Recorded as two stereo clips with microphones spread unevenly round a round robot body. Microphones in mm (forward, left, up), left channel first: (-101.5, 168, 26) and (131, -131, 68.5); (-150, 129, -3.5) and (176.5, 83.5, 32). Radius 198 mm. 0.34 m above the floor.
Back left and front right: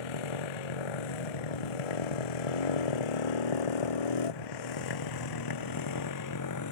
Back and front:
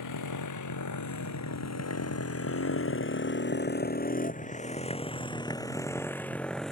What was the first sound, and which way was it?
A motorcycle, 145° left.